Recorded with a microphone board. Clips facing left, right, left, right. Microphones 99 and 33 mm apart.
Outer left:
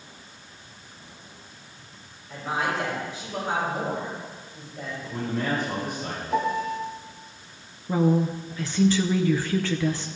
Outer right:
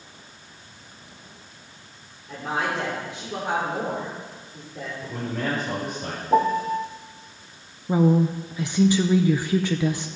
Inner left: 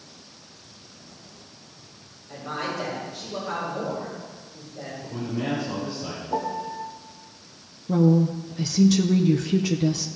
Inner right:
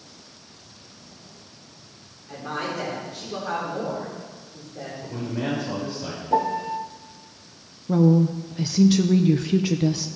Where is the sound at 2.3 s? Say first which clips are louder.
Outer right 1 dB, inner right 1 dB; 80° right, 5 m.